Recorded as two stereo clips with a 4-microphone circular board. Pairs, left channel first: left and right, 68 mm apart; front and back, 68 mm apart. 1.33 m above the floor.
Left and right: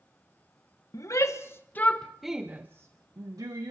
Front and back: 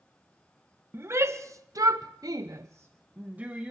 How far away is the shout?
About 1.2 m.